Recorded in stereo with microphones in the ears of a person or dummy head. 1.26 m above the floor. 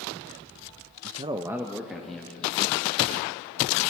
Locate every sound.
1.0 s a man speaking: 45° right (ahead or behind), 0.6 m; by 2.8 s 10° left (ahead or behind), 3 m